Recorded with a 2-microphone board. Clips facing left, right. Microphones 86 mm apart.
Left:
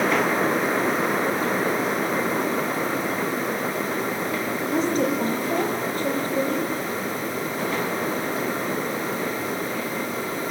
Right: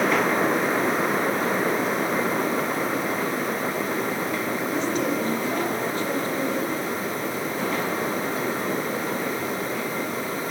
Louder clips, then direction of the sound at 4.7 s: Left 4 dB; 40° left (ahead or behind).